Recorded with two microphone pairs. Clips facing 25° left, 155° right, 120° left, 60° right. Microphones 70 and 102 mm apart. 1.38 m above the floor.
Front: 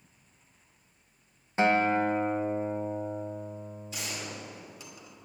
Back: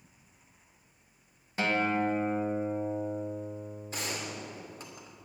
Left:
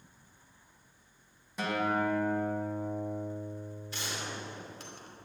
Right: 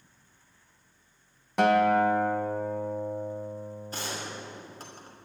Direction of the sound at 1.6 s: 40° right.